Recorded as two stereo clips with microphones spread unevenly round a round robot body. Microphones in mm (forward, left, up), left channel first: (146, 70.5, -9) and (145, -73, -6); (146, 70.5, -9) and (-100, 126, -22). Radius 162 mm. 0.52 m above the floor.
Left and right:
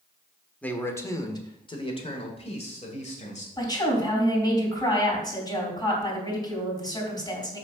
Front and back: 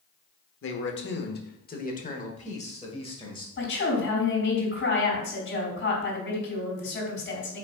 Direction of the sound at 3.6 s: 30° left.